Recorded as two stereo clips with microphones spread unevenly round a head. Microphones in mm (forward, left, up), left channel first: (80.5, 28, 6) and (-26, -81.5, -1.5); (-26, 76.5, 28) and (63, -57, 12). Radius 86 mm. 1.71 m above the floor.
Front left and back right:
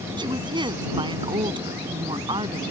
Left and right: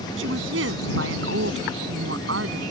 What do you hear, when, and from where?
0.2 s a woman speaking: 75° right